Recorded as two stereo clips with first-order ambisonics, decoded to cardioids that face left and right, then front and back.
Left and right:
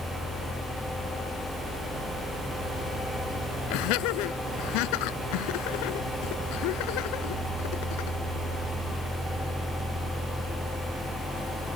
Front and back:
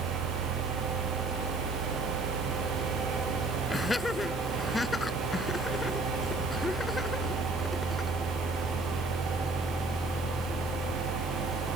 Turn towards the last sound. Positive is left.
turn(degrees=80)